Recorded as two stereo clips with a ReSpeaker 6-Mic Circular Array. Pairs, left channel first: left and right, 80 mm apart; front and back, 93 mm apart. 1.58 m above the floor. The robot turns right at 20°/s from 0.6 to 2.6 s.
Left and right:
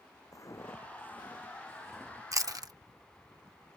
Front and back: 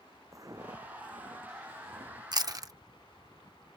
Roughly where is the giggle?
No giggle in this recording.